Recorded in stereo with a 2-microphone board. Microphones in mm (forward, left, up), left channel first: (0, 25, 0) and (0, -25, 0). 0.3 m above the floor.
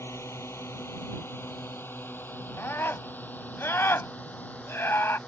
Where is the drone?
65° left (ahead or behind); by 5.3 s 30° left (ahead or behind).